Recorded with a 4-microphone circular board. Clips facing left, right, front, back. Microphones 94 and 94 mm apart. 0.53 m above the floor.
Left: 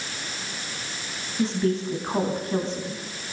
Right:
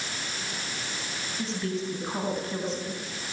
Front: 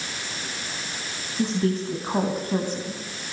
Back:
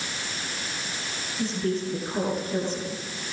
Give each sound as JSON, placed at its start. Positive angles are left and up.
{"t": 1.4, "sound": "a woman speaking", "azimuth_deg": 30, "distance_m": 4.0}